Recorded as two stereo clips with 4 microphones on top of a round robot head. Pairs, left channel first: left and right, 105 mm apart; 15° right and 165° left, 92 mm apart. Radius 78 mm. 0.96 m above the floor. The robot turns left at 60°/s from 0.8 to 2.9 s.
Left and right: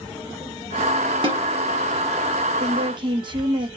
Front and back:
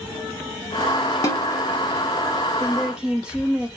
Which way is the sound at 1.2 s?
65° right.